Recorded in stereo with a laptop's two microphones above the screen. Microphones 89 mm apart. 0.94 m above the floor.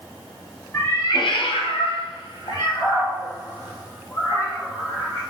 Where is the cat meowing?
30° left (ahead or behind), 0.8 m; by 5.2 s 40° left (ahead or behind), 3.5 m.